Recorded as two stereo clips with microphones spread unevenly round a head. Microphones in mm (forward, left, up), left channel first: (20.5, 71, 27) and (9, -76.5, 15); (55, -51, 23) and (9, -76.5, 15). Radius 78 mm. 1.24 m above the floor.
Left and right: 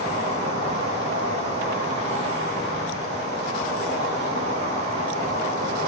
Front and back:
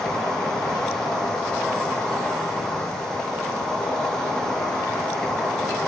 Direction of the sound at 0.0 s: 50° right.